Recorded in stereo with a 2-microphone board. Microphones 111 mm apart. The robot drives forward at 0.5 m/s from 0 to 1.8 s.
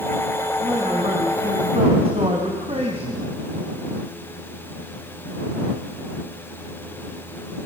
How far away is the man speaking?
About 3 m.